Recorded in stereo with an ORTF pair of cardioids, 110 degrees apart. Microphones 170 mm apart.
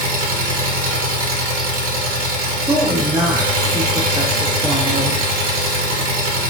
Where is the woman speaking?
10° right, 0.9 m.